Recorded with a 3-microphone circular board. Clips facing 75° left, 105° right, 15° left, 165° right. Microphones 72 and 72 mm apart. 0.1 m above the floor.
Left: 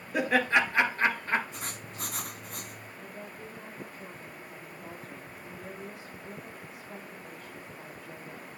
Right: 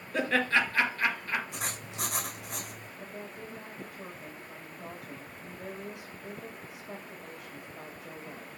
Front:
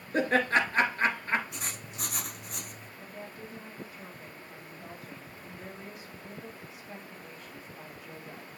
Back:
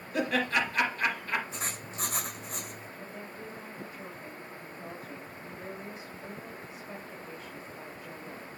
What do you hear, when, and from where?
0.1 s laughter: straight ahead, 2 m; by 1.4 s 45° left, 2 m
1.5 s writing: 105° right, 2.5 m
3.0 s a woman speaking: 95° right, 4.5 m